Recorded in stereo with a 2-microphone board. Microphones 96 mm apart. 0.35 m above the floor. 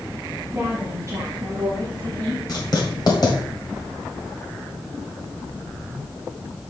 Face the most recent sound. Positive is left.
turn(degrees=45)  # may be behind; listen again after turning